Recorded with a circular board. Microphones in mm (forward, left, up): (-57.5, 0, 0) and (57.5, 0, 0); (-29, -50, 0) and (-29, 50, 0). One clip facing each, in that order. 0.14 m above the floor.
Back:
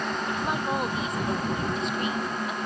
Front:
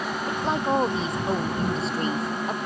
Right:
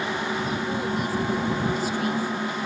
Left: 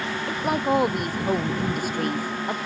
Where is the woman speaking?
65° left; by 2.6 s 50° left.